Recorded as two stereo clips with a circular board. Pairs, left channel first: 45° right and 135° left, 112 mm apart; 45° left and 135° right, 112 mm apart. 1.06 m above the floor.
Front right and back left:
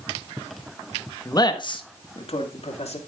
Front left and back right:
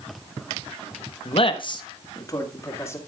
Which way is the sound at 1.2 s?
15° left.